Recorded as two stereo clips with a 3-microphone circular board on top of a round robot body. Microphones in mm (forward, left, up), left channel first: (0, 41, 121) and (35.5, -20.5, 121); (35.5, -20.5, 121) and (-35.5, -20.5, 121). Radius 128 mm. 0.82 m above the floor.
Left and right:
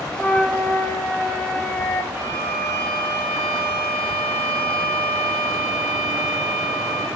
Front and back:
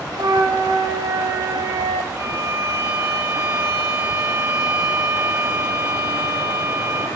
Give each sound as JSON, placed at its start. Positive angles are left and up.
{"t": 0.1, "sound": "a flute", "azimuth_deg": -165, "distance_m": 1.6}
{"t": 2.1, "sound": "a violin", "azimuth_deg": -135, "distance_m": 5.0}